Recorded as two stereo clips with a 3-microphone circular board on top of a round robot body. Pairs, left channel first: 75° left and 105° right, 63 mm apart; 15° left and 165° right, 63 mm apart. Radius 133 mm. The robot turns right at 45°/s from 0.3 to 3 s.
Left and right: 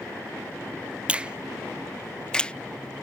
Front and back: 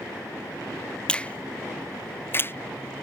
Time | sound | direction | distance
1.1 | a finger snap | 50° right | ?